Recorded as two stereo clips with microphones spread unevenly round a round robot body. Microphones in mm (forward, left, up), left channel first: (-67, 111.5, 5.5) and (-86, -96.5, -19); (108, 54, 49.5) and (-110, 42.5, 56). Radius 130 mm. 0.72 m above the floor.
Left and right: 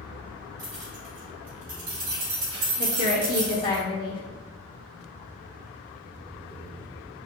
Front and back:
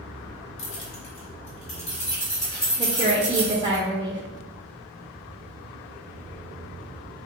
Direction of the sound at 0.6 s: 20° right.